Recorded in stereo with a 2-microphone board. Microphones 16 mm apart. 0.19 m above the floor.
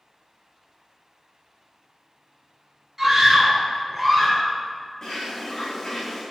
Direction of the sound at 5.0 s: 40° left (ahead or behind).